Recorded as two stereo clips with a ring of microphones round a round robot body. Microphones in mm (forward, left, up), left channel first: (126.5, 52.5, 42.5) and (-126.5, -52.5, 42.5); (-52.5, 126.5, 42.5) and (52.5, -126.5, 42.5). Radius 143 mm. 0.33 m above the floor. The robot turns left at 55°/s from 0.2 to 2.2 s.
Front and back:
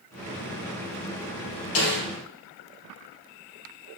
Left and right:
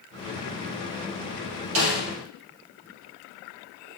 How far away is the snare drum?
About 3 m.